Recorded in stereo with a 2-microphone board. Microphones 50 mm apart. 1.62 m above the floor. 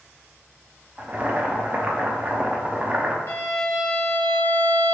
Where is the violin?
60° left (ahead or behind), 0.8 m.